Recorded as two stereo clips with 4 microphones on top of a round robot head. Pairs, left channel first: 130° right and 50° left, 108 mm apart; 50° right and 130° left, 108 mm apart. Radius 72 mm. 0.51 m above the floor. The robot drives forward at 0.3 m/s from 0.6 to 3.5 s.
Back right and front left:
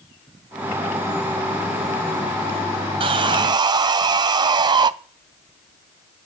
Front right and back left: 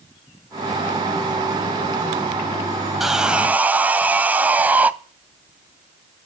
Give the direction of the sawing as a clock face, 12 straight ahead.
11 o'clock.